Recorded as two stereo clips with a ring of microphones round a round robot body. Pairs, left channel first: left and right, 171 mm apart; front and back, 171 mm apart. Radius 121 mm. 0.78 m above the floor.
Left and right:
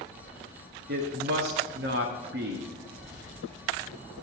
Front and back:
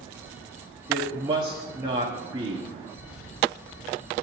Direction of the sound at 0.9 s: 110° right.